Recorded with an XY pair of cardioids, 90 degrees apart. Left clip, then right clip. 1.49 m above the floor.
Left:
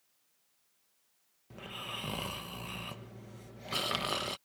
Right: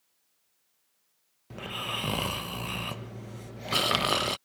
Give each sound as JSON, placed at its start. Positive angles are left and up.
{"t": 1.5, "sound": "snoring", "azimuth_deg": -55}